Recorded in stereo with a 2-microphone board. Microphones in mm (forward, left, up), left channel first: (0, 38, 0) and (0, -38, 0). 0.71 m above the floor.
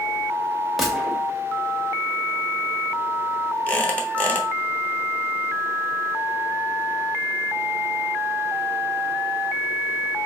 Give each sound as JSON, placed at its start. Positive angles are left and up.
{"t": 0.8, "sound": "a gunshot", "side_deg": 0, "distance_m": 1.0}
{"t": 3.7, "sound": "a squeak", "side_deg": 20, "distance_m": 0.9}